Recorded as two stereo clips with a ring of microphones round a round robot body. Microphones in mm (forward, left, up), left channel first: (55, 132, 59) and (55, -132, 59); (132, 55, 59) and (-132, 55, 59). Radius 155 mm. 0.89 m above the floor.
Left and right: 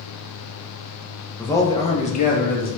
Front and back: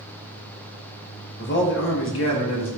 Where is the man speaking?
10° left, 0.8 m; by 2.7 s 35° left, 1.5 m.